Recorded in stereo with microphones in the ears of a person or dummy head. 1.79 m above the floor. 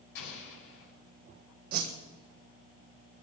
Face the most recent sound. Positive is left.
turn(degrees=-55)  # may be behind; listen again after turning